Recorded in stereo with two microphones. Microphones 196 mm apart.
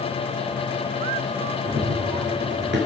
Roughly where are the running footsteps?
Right.